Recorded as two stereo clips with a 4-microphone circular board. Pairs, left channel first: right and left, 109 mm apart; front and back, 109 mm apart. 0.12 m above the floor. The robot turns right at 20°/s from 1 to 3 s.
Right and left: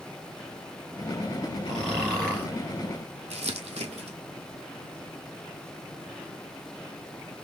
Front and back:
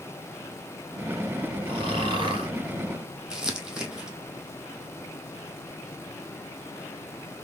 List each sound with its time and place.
1.7 s snoring: straight behind, 2 m; by 2.5 s 165° right, 2 m
3.3 s crumpling: 95° left, 0.7 m